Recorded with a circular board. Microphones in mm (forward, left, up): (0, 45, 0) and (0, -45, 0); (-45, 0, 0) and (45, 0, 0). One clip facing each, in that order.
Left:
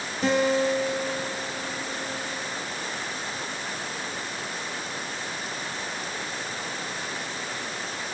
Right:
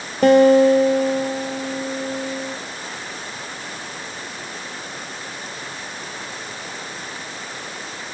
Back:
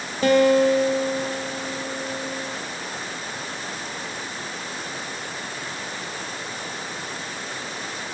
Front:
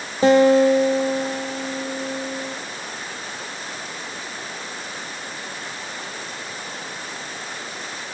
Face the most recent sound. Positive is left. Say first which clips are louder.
# right 11 dB, front 3 dB
turn(degrees=-70)